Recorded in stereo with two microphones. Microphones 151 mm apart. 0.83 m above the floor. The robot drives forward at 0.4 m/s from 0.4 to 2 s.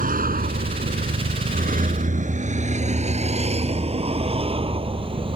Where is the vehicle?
70° right (ahead or behind); by 5.4 s 35° right (ahead or behind).